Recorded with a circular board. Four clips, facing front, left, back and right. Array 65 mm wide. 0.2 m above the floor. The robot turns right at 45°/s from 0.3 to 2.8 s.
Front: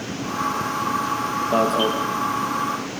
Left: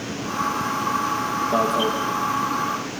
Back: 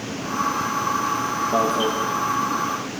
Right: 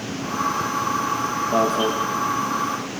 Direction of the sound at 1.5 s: 15° right.